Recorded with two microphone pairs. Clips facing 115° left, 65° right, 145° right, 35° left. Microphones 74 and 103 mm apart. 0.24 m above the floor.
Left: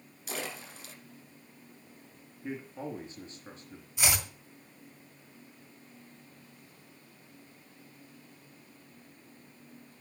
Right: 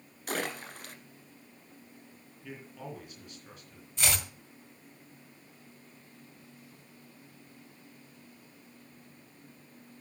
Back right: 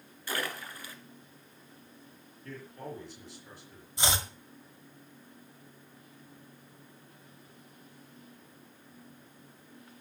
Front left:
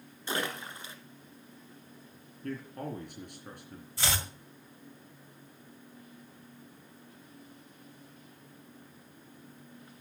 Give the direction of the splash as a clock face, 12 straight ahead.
1 o'clock.